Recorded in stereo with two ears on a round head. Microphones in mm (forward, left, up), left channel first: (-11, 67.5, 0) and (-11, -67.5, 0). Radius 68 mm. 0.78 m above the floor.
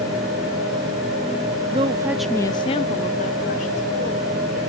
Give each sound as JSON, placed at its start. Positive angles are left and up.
{"t": 1.7, "sound": "a woman speaking", "side_deg": -35, "distance_m": 0.7}